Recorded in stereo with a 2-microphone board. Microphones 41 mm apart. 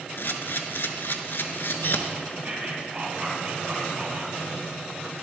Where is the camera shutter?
60° left (ahead or behind), 0.6 m.